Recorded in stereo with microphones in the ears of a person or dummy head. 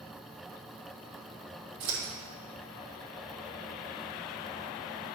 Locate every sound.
1.8 s scissors: 70° right (ahead or behind), 2.5 m